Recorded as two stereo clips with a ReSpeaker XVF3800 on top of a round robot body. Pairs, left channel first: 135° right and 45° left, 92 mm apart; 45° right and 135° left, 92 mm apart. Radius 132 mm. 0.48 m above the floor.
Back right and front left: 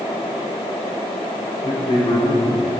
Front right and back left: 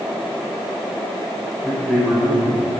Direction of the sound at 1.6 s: 125° right.